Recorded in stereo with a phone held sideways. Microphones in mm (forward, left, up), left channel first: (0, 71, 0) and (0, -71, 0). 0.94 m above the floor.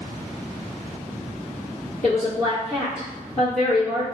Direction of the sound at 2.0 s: 70° left (ahead or behind).